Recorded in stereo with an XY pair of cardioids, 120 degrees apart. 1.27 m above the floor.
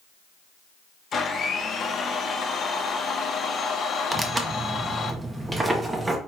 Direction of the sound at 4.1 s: 20° right.